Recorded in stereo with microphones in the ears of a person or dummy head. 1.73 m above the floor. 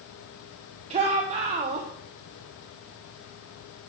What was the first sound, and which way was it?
A shout, 35° right (ahead or behind).